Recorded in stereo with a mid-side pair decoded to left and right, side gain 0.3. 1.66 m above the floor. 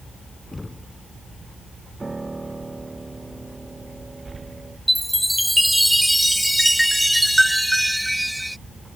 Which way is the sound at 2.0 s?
30° right.